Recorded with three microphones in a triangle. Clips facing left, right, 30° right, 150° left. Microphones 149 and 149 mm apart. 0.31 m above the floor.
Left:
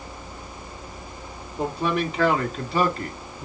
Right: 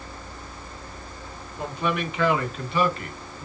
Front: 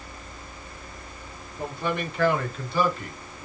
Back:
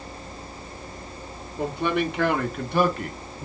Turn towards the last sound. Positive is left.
turn(degrees=130)